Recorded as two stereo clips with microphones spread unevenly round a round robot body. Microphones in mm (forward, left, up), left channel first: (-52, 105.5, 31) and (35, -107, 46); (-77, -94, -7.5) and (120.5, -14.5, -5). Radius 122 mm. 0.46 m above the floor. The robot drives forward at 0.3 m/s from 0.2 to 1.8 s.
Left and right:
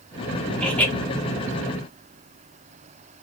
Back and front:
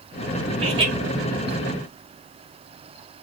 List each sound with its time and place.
0.6 s laughter: 35° left, 0.7 m; by 0.9 s 55° left, 0.7 m